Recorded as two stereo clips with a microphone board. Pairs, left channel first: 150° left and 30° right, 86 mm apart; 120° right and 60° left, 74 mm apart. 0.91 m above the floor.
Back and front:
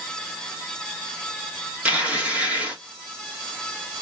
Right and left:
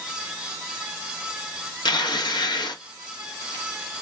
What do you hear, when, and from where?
1.9 s tearing paper: 105° right, 0.9 m